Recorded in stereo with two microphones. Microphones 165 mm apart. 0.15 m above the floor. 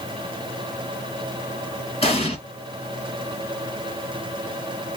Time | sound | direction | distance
2.0 | an explosion | 35° left (ahead or behind) | 1.4 m